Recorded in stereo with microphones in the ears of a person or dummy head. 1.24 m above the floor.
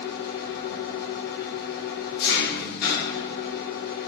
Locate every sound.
0.0 s an engine running: 55° left (ahead or behind), 1.0 m